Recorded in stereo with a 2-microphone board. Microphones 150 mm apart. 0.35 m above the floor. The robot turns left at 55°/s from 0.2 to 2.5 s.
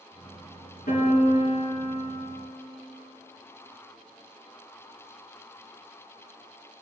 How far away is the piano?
About 3.5 m.